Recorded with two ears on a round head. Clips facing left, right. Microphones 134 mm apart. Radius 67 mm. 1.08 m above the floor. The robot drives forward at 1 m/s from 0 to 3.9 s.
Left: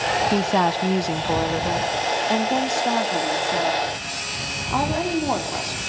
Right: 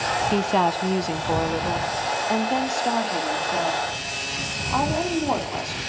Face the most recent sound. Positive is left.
turn(degrees=0)  # may be behind; listen again after turning